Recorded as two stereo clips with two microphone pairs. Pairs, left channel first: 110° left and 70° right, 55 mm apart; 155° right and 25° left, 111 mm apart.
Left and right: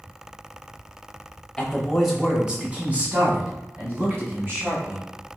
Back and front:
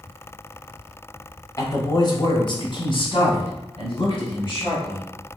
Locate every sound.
1.6 s a man speaking: straight behind, 1.0 m; by 5.0 s 115° right, 3 m